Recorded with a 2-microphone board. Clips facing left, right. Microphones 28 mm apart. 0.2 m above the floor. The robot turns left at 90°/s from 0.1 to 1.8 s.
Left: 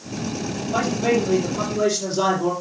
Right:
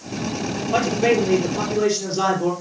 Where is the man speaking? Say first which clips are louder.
Right 2 dB; 60° right, 5 m; by 2.5 s 160° right, 5 m.